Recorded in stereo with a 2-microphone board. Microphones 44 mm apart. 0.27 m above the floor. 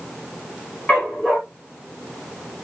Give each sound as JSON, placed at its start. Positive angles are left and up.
{"t": 0.9, "sound": "a dog barking", "side_deg": 35, "distance_m": 6.0}